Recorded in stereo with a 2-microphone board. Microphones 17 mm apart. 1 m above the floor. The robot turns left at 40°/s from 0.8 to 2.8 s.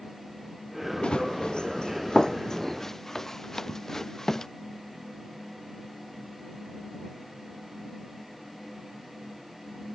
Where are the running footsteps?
85° left; by 4.5 s 35° left (ahead or behind).